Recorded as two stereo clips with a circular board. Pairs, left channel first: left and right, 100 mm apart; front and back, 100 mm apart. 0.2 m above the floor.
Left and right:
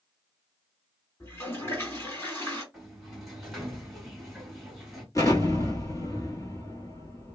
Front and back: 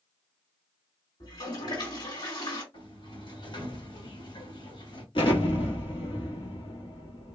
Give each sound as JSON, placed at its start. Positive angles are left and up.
{"t": 1.2, "sound": "a toilet flushing", "azimuth_deg": 30, "distance_m": 1.9}
{"t": 2.7, "sound": "a sliding door", "azimuth_deg": 0, "distance_m": 1.8}
{"t": 5.2, "sound": "an explosion", "azimuth_deg": 35, "distance_m": 1.5}